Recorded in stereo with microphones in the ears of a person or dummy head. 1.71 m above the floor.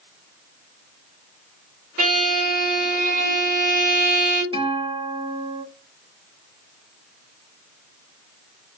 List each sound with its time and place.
2.0 s a violin: 55° right (ahead or behind), 1.8 m
4.5 s a guitar: 35° right (ahead or behind), 0.6 m